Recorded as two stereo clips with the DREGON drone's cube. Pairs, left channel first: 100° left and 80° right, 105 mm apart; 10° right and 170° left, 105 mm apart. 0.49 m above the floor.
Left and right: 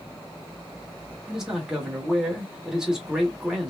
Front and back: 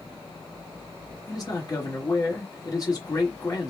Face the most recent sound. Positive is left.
turn(degrees=0)